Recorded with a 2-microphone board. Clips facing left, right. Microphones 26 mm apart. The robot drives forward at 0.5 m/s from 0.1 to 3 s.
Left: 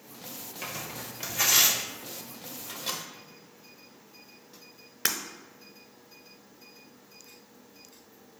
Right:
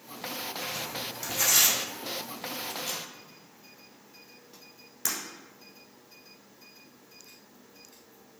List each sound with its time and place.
0.6 s tearing paper: 15° left (ahead or behind), 1.1 m; by 1.8 s 25° left (ahead or behind), 0.8 m
2.6 s a microwave: 55° left (ahead or behind), 1.0 m
5.0 s breaking glass: 60° left (ahead or behind), 1.0 m